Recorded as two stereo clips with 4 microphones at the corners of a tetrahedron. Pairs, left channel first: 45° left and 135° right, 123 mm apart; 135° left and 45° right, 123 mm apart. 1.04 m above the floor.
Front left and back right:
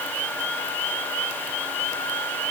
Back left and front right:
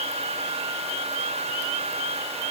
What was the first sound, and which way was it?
Only background noise.